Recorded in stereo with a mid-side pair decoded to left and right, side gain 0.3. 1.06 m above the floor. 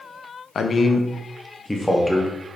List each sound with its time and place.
0.6 s a man speaking: 65° left, 0.7 m; by 2.3 s straight ahead, 1.5 m